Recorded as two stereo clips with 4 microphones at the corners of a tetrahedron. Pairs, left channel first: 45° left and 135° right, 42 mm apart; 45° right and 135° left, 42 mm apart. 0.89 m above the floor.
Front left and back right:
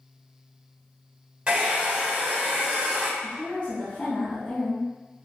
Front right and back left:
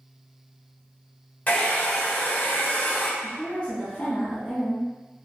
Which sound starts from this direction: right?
A hair dryer, at 1.5 s.